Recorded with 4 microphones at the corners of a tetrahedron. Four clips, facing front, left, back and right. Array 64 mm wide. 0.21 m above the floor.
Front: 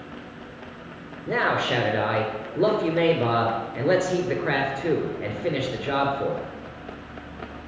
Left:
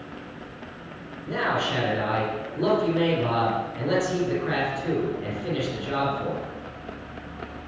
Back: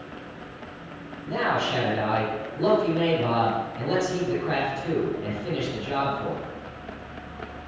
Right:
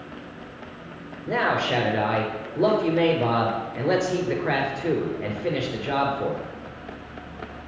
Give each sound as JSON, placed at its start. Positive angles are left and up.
{"t": 1.3, "sound": "a man speaking", "azimuth_deg": -25, "distance_m": 3.5}